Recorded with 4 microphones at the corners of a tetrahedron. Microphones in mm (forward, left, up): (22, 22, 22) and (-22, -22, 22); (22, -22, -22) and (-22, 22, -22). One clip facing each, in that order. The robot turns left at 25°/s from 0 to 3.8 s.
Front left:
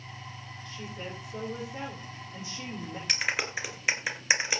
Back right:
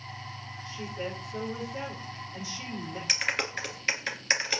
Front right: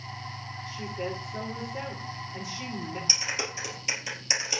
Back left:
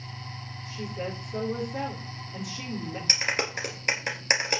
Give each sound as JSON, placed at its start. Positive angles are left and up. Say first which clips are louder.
{"t": 0.7, "sound": "a woman speaking", "louder": "back right 5 dB, even", "azimuth_deg": 155, "distance_m": 7.0}
{"t": 3.1, "sound": "a clap", "louder": "even, back left 9 dB", "azimuth_deg": 135, "distance_m": 2.5}